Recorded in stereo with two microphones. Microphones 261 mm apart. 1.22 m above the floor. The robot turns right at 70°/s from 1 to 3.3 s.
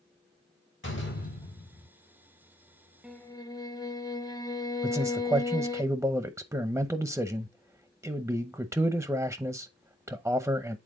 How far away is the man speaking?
About 0.7 m.